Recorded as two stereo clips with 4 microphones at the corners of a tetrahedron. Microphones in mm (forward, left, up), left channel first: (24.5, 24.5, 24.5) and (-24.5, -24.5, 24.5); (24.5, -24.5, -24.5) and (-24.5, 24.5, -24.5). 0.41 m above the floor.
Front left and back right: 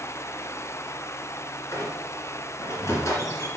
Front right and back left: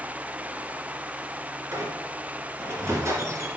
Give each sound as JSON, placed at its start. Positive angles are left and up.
{"t": 1.7, "sound": "a squeak", "azimuth_deg": 90, "distance_m": 2.0}